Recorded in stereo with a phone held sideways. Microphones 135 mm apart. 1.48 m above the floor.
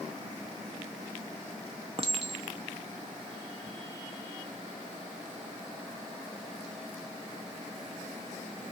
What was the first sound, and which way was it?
A clink, 45° right (ahead or behind).